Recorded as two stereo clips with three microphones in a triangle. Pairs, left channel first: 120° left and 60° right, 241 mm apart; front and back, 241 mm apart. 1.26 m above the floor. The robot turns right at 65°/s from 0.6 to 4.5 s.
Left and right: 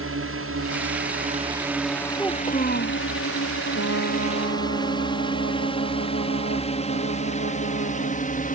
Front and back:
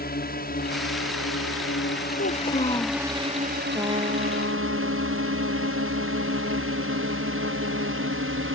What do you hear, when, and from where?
0.0 s a drone: 45° right; by 8.6 s 170° left
2.2 s a child speaking: 30° left; by 3.0 s 90° left
3.8 s a trumpet: 100° left; by 8.3 s 150° left